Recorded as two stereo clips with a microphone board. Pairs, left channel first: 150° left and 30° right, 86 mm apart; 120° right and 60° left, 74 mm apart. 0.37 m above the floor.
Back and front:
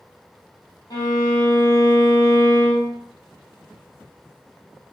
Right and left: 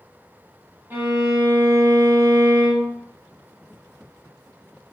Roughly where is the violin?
Behind left.